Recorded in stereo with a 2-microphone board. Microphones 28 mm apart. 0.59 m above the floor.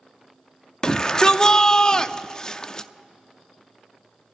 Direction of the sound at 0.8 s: 25° left (ahead or behind).